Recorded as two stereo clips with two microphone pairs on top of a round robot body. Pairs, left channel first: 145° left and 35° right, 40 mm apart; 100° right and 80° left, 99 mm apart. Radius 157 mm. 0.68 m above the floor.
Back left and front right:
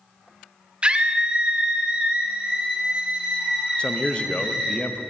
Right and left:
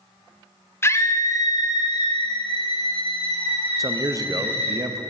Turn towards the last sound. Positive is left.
turn(degrees=110)